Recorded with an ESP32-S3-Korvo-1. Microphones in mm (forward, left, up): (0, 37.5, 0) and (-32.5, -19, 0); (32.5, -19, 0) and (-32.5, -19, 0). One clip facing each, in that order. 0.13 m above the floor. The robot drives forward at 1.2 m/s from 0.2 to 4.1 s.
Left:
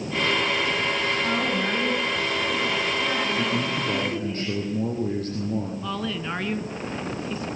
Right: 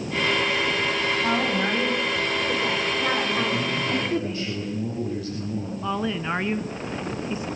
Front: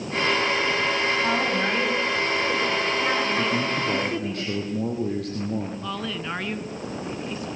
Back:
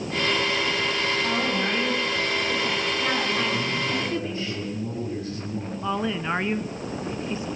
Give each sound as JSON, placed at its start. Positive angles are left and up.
{"t": 1.2, "sound": "a woman speaking", "azimuth_deg": -60, "distance_m": 9.5}
{"t": 3.4, "sound": "a man speaking", "azimuth_deg": 15, "distance_m": 5.5}
{"t": 5.8, "sound": "a woman speaking", "azimuth_deg": -155, "distance_m": 1.3}